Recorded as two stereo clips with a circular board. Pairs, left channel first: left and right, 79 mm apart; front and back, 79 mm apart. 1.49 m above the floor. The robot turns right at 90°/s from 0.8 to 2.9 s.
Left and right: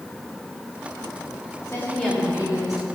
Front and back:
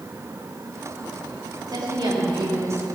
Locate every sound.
1.7 s a woman speaking: 140° left, 4 m; by 2.9 s 115° right, 4 m